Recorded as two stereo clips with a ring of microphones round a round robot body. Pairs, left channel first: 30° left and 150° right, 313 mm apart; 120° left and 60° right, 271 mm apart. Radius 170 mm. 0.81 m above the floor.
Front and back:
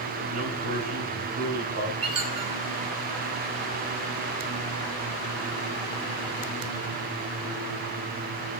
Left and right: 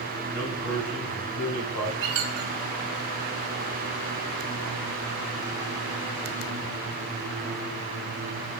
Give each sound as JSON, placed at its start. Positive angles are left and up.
{"t": 0.3, "sound": "a man speaking", "azimuth_deg": 165, "distance_m": 5.0}
{"t": 2.0, "sound": "a squeak", "azimuth_deg": -75, "distance_m": 2.0}